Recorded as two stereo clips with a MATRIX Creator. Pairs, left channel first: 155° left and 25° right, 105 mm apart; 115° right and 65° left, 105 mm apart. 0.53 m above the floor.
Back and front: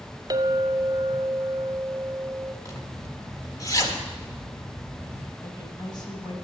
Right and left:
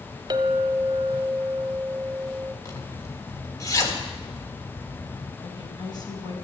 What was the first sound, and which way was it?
A clink, 25° left.